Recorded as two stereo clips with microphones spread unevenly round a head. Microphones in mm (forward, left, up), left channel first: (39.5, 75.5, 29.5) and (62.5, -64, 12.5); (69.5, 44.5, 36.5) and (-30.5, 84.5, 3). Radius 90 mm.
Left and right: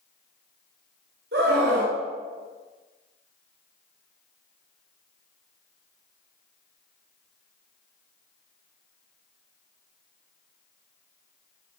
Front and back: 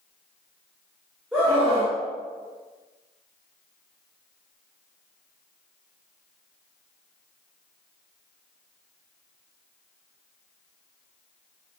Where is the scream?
115° right, 2.5 m.